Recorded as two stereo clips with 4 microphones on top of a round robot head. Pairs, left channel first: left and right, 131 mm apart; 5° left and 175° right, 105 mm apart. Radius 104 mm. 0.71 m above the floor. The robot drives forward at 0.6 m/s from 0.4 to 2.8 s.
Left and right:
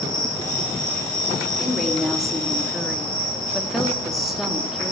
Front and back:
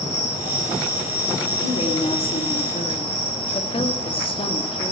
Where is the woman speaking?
Straight ahead, 2.5 m.